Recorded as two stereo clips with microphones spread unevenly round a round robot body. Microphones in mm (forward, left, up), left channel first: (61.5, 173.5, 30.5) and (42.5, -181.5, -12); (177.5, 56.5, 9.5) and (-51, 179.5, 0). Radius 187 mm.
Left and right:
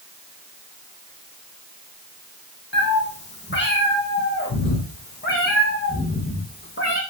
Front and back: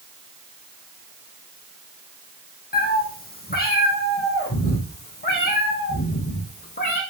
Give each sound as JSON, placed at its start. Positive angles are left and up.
{"t": 2.7, "sound": "a cat meowing", "azimuth_deg": 25, "distance_m": 5.0}